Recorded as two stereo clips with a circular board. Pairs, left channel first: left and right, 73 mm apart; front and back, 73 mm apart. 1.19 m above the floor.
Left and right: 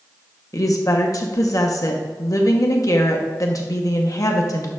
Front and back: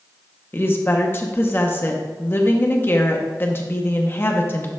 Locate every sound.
0.5 s a woman speaking: 55° left, 0.9 m